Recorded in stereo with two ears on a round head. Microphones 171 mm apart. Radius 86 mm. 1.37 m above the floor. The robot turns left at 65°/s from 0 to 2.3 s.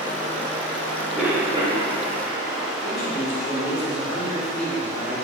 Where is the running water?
15° right, 2 m; by 5.2 s 165° right, 2 m.